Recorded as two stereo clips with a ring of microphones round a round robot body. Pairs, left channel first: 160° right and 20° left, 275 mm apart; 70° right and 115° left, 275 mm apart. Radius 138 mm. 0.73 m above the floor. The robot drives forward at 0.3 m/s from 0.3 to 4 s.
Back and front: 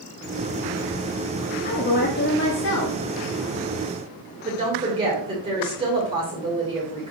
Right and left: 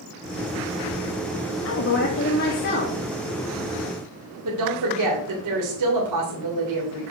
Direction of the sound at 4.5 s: 95° left.